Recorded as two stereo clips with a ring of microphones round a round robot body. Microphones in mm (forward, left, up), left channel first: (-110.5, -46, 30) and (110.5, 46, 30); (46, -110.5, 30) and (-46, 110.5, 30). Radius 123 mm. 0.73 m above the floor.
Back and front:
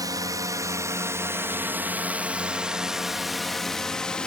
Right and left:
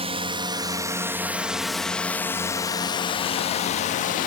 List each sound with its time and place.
0.0 s a drone: 80° left; by 4.3 s 75° right